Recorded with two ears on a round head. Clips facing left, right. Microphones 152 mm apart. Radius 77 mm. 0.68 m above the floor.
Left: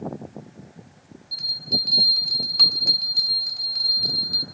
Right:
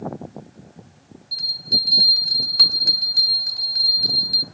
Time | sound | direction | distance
1.3 | a bell | centre (ahead or behind) | 1.5 m